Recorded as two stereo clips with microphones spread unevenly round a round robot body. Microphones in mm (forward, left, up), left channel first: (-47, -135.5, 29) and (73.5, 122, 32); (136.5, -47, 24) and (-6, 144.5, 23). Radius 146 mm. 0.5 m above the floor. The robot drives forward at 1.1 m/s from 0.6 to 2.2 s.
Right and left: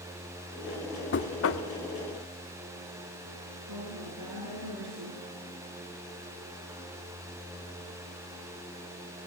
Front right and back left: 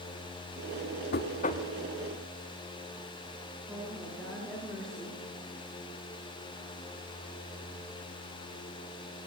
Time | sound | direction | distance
1.1 | knocking | 80° right | 1.3 m
3.7 | a woman speaking | 35° left | 6.5 m